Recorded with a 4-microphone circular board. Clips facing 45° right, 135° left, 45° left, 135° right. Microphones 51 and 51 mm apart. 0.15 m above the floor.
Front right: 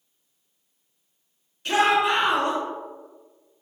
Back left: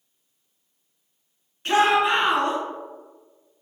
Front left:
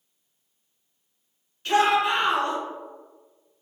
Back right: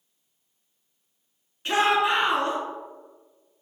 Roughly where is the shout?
Behind.